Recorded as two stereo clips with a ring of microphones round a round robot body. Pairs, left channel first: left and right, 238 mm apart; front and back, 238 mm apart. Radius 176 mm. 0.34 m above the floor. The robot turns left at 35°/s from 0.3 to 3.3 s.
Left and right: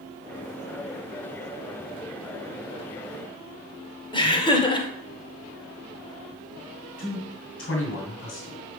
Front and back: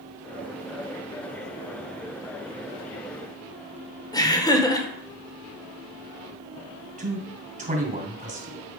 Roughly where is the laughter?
Ahead left.